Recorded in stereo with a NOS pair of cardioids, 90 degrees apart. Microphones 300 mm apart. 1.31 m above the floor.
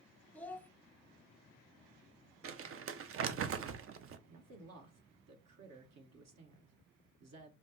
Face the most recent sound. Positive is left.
turn(degrees=-60)